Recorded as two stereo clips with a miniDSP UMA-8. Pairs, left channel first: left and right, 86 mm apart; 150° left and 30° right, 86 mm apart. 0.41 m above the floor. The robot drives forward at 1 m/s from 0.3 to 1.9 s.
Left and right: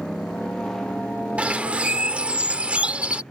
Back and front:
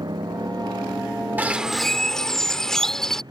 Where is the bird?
45° right; by 3.2 s 135° right.